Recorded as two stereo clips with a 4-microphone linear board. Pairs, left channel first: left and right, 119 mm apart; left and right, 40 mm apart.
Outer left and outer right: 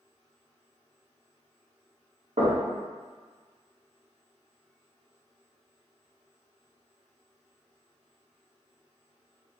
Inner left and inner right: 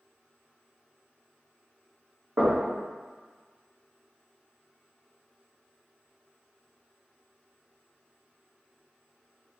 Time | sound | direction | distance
2.4 | knocking | 65° right (ahead or behind) | 1.4 m